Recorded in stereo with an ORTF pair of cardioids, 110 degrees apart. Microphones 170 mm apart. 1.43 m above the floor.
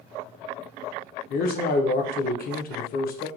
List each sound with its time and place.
1.3 s a man speaking: 55° left, 0.7 m